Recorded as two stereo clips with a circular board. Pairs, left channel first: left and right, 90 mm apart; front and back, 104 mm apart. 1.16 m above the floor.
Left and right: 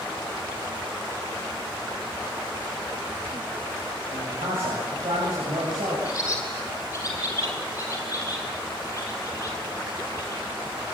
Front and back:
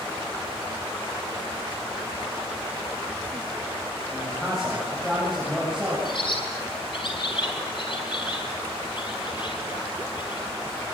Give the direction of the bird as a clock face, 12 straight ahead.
11 o'clock.